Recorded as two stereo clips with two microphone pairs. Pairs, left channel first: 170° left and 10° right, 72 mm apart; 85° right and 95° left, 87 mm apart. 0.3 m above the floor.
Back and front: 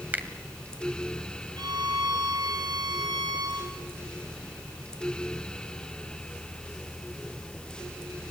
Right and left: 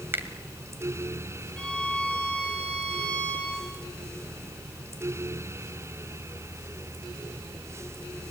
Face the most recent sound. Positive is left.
turn(degrees=-5)